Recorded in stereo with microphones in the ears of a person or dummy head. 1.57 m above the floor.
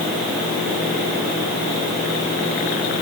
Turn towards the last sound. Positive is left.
No sound to turn to.